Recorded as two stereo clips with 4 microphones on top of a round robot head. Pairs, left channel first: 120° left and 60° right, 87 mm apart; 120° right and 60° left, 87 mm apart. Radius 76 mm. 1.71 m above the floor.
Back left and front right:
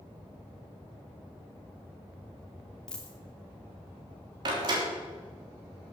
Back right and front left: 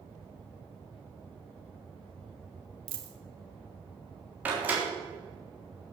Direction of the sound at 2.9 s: 45° left.